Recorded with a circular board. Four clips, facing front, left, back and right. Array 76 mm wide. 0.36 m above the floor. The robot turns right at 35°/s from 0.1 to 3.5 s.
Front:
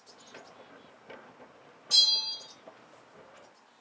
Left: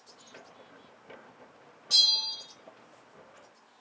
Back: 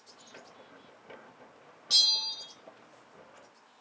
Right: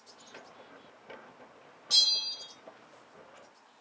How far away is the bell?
About 1.4 m.